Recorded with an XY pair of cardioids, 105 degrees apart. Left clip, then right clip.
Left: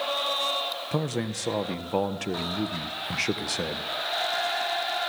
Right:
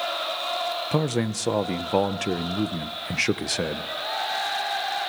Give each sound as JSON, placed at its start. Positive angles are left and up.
{"t": 0.9, "sound": "a man speaking", "azimuth_deg": -25, "distance_m": 1.3}